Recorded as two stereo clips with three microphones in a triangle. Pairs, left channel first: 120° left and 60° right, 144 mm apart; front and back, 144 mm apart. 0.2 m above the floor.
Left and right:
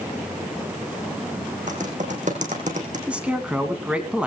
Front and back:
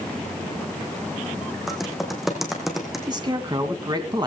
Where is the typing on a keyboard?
90° right, 4 m.